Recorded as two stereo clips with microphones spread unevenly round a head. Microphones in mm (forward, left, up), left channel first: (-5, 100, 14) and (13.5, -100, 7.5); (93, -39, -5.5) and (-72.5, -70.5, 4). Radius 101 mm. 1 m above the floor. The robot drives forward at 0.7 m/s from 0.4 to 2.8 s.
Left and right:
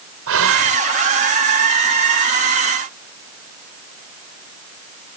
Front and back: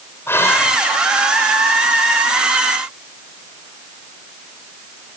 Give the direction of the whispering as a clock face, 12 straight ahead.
2 o'clock.